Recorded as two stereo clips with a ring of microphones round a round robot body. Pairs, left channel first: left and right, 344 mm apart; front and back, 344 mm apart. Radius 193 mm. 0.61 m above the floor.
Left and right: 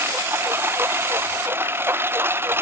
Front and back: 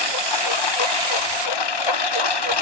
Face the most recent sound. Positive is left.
turn(degrees=-5)